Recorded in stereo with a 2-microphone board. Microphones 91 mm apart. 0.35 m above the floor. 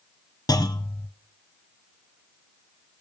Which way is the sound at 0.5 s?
45° left (ahead or behind).